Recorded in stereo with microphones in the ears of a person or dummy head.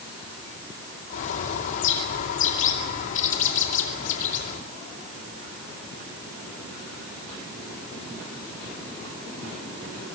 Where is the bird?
45° left (ahead or behind), 2.5 m.